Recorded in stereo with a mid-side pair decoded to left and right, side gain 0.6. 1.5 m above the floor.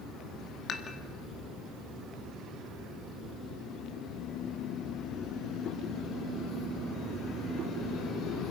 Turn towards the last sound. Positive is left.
turn(degrees=45)